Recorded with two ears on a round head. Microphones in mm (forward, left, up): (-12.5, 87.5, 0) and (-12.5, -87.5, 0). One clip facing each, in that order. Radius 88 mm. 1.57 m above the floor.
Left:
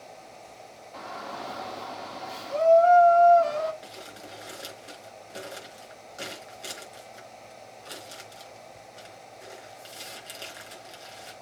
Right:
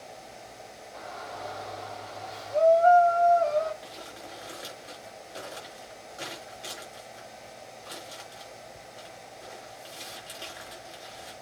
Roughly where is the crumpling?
Left.